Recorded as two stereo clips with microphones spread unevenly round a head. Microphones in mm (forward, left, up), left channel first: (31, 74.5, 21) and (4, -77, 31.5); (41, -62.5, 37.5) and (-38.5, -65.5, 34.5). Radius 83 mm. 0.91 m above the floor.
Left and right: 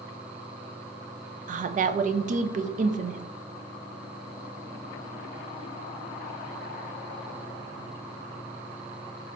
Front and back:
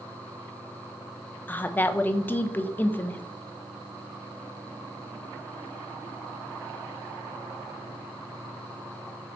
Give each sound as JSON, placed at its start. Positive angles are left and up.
{"t": 1.5, "sound": "a woman speaking", "azimuth_deg": -65, "distance_m": 0.5}